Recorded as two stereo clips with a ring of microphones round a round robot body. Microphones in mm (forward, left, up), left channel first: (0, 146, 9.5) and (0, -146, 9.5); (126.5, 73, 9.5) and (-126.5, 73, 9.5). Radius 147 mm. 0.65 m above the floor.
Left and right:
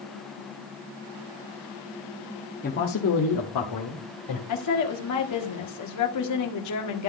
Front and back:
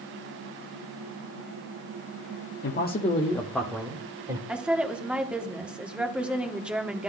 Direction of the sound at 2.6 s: 30° left.